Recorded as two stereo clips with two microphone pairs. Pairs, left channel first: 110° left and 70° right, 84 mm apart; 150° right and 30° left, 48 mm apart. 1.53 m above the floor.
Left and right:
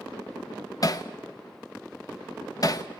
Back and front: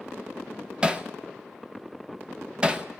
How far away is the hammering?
About 0.9 m.